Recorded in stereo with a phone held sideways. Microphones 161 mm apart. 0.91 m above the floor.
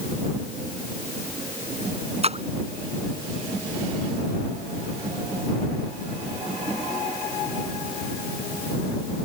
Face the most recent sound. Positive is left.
turn(degrees=-40)  # may be behind; listen again after turning